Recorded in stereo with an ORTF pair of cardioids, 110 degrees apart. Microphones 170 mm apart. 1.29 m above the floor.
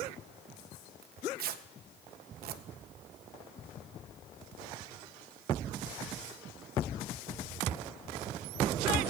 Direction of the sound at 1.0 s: 65° right.